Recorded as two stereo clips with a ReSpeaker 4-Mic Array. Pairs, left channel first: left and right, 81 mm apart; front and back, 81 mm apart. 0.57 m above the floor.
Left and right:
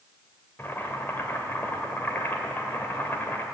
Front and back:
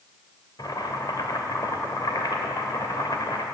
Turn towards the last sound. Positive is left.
turn(degrees=25)